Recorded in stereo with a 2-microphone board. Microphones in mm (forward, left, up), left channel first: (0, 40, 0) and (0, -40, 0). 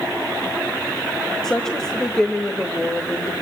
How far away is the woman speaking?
About 1.6 m.